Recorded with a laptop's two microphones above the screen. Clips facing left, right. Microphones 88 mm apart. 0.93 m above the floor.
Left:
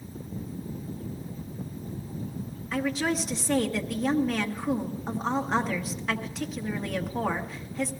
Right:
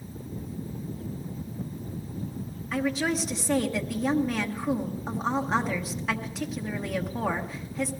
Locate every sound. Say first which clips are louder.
2.7 s a woman speaking: right 1 dB; 5° right (ahead or behind), 1.0 m